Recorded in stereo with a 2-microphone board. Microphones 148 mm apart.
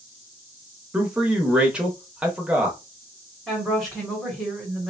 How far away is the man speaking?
About 0.8 m.